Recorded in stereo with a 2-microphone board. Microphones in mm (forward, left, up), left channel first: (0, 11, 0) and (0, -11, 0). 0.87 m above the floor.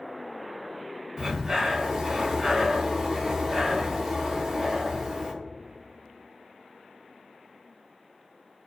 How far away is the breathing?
About 0.6 m.